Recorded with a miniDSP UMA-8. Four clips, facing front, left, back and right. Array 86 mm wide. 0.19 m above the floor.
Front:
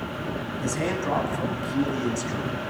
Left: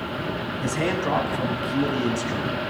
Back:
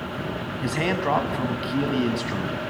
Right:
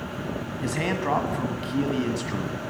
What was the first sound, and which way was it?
A man speaking, 170° right.